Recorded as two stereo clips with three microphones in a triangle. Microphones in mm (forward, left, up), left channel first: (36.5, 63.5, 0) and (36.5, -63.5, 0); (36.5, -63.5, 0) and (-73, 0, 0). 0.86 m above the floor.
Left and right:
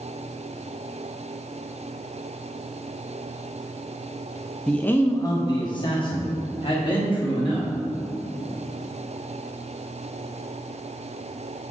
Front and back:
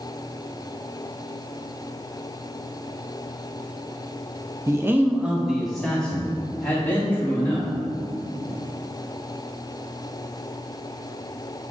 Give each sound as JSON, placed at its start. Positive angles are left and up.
{"t": 4.7, "sound": "a man speaking", "azimuth_deg": 160, "distance_m": 0.6}